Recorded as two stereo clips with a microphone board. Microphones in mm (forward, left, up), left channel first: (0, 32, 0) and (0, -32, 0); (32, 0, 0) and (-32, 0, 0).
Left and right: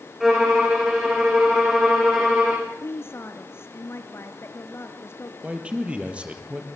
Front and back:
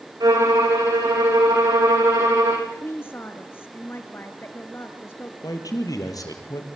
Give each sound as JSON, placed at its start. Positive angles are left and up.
{"t": 0.2, "sound": "a violin", "azimuth_deg": -175, "distance_m": 9.0}
{"t": 2.7, "sound": "a woman speaking", "azimuth_deg": 50, "distance_m": 2.5}
{"t": 5.4, "sound": "a man speaking", "azimuth_deg": -20, "distance_m": 4.0}